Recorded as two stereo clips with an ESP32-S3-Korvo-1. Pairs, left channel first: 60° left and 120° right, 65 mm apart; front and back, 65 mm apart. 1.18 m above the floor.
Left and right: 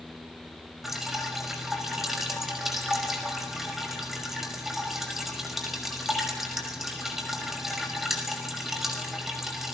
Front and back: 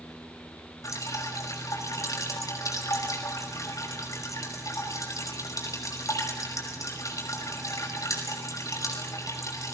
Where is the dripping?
35° right, 5 m.